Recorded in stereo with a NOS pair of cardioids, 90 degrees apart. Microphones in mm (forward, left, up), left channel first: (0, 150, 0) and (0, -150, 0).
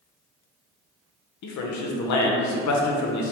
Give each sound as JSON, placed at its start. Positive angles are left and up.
{"t": 1.4, "sound": "a man speaking", "azimuth_deg": 65, "distance_m": 0.7}